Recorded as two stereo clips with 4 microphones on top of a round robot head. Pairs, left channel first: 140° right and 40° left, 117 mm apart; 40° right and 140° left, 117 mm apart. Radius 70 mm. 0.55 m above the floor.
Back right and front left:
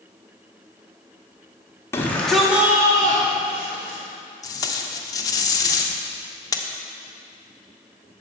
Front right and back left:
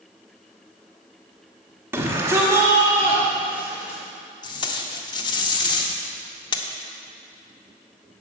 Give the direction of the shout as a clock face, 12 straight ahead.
6 o'clock.